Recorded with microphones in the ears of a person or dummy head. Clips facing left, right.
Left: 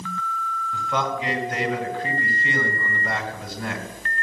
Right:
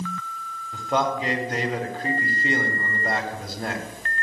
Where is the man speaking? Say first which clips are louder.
Right 3 dB; 40° right (ahead or behind), 3.5 m.